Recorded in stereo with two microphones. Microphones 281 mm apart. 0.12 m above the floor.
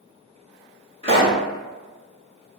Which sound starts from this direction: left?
A pop, at 1.0 s.